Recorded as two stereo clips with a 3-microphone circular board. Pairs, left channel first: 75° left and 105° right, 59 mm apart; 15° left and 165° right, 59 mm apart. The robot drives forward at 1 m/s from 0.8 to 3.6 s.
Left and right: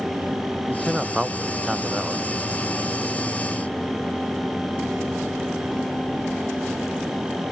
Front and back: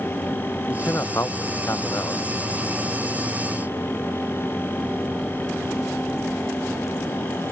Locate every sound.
0.7 s a man speaking: 25° right